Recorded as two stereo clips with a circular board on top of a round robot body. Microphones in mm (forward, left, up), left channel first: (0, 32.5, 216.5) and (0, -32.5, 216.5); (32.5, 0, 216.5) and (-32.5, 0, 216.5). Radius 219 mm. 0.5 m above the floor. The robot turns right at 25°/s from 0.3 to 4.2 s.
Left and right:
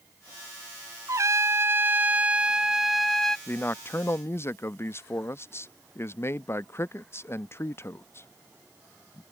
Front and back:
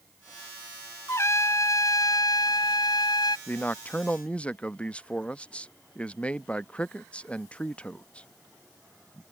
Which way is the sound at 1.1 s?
50° right.